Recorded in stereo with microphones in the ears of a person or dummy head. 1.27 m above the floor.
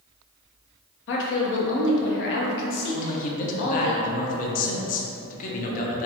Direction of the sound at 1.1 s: 70° left (ahead or behind).